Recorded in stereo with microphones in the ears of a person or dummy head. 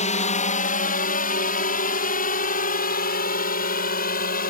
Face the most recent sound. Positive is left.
turn(degrees=40)  # may be behind; listen again after turning